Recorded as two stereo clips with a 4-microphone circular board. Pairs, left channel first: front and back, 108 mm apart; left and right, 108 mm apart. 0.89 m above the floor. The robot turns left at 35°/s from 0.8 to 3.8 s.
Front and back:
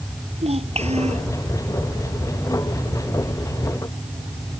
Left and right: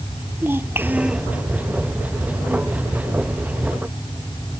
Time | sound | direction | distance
0.4 | a child speaking | 160° right | ?